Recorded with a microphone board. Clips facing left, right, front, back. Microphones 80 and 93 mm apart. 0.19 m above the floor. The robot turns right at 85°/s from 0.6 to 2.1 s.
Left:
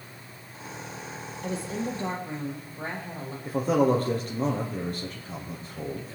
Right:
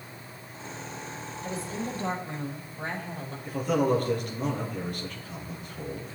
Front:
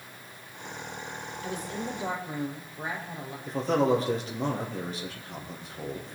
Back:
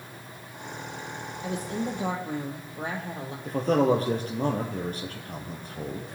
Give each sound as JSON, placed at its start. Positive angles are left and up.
{"t": 1.4, "sound": "a woman speaking", "azimuth_deg": 110, "distance_m": 5.5}
{"t": 3.5, "sound": "a man speaking", "azimuth_deg": 140, "distance_m": 5.0}